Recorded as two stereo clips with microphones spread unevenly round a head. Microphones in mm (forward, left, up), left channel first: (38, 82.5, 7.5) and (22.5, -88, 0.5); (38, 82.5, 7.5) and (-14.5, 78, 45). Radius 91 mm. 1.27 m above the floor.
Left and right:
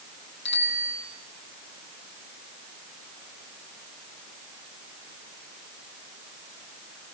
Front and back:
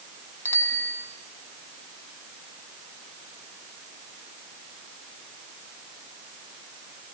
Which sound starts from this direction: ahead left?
A bicycle bell, at 0.5 s.